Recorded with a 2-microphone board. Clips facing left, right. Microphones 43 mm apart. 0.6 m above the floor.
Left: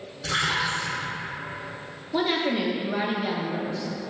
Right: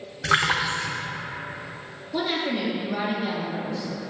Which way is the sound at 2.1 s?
15° left (ahead or behind).